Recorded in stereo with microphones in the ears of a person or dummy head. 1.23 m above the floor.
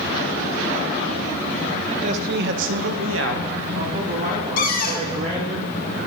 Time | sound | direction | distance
1.9 | a man speaking | 35° right (ahead or behind) | 0.6 m
4.6 | a cupboard door | 40° left (ahead or behind) | 0.6 m